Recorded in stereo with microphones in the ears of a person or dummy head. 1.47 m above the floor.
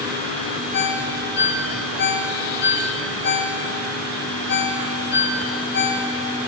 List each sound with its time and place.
0.7 s a ringtone: 65° left (ahead or behind), 4 m